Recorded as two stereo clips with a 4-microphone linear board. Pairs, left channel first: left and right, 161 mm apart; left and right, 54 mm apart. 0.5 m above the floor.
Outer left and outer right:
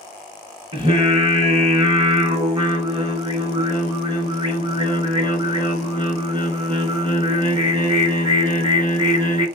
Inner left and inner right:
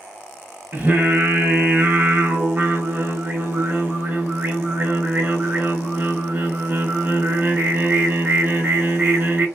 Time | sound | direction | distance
0.7 | singing | 35° right (ahead or behind) | 1.6 m